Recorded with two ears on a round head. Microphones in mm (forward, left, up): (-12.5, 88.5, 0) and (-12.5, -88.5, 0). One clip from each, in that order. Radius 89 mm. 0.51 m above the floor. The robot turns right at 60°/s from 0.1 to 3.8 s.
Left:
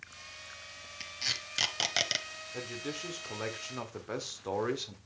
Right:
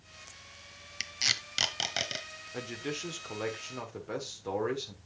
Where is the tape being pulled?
40° right (ahead or behind), 0.8 m; by 2.2 s 35° left (ahead or behind), 0.8 m.